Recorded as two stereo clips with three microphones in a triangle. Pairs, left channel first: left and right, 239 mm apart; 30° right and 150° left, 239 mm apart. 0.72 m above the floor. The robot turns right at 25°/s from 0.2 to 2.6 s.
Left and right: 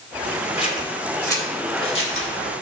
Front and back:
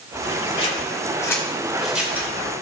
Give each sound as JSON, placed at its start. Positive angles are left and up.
{"t": 0.6, "sound": "scissors", "azimuth_deg": 30, "distance_m": 2.5}